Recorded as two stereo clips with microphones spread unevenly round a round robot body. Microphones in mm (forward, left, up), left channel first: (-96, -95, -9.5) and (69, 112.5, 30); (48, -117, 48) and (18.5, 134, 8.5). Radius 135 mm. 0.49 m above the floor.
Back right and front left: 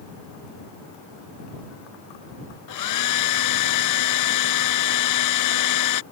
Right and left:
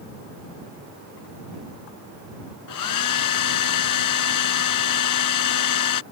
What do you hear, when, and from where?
2.7 s a hair dryer: 105° right